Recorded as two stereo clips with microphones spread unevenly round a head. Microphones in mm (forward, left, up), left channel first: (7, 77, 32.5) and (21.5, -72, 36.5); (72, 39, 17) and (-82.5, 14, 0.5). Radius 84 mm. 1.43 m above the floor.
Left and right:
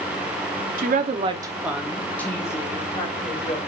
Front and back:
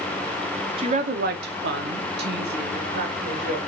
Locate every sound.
0.8 s a woman speaking: 110° right, 1.0 m; by 3.6 s 155° left, 2.5 m